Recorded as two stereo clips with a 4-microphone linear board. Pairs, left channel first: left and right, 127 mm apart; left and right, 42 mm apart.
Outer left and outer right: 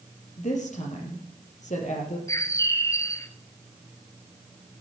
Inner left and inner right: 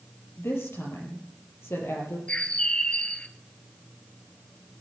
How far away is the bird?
About 1.1 m.